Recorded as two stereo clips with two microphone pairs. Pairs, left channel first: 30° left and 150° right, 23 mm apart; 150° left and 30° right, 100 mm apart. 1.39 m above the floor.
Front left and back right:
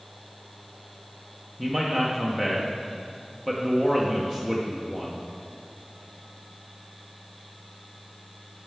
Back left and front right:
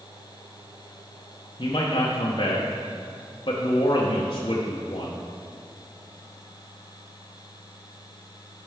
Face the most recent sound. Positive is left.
turn(degrees=110)